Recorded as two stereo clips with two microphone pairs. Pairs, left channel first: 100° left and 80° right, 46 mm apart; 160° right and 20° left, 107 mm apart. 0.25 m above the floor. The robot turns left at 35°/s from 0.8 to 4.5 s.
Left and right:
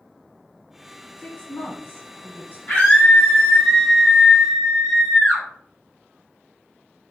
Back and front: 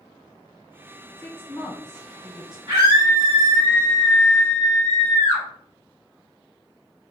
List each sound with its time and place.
1.2 s a woman speaking: 150° left, 1.3 m; by 2.6 s 100° left, 1.3 m
2.7 s a scream: 50° left, 1.6 m; by 5.4 s 15° right, 1.6 m